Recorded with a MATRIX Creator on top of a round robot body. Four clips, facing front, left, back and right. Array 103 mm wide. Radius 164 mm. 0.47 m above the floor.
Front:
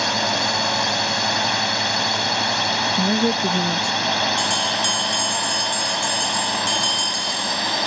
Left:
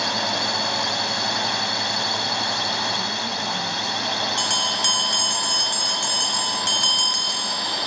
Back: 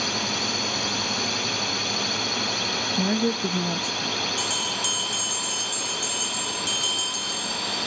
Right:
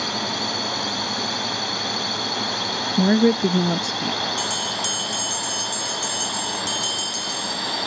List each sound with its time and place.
0.0 s a drone: 20° left; by 7.9 s straight ahead
3.0 s a woman speaking: 80° right
4.4 s a bell: 70° left